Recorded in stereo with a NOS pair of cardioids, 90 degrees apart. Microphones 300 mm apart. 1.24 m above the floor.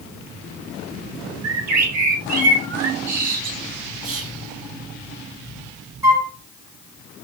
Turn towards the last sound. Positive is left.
turn(degrees=-10)